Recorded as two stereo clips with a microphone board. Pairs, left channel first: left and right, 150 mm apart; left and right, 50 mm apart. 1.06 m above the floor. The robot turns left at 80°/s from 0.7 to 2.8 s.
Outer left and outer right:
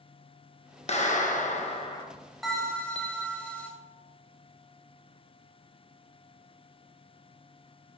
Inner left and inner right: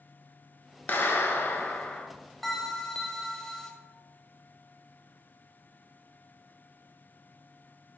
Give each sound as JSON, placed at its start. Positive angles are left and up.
{"t": 0.9, "sound": "a clap", "azimuth_deg": 120, "distance_m": 0.8}
{"t": 2.4, "sound": "a bell", "side_deg": 0, "distance_m": 0.8}